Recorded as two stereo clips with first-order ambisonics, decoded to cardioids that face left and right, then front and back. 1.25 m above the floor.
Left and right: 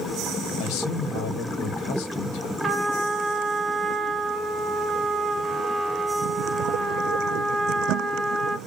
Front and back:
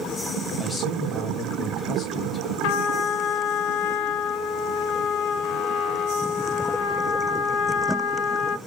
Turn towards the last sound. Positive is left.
turn(degrees=-10)